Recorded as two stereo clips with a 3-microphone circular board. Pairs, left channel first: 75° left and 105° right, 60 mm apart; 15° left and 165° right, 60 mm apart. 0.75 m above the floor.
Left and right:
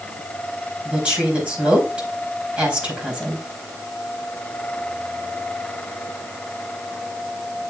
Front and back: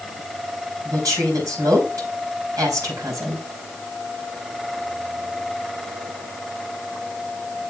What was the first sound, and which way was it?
A woman speaking, 175° right.